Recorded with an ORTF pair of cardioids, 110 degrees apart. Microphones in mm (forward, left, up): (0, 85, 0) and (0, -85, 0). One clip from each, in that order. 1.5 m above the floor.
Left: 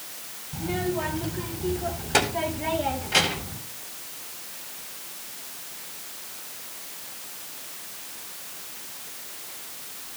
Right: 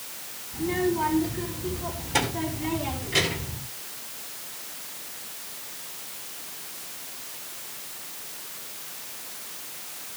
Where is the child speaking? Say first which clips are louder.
Right 3 dB; 60° left, 5.5 m; by 3.6 s 80° left, 5.5 m.